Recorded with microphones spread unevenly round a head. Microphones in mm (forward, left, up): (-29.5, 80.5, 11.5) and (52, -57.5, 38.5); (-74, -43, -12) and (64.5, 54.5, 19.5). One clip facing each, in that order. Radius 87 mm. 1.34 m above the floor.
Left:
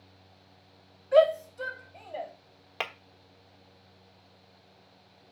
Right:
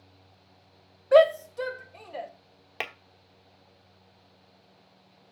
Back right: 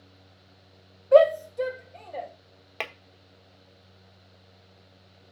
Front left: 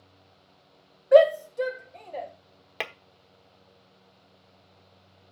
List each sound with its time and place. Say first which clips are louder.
1.1 s a shout: right 3 dB, even; 40° right, 0.8 m; by 2.3 s 60° right, 2 m
2.8 s tapping: left 1 dB, front left 1 dB; 25° right, 1.0 m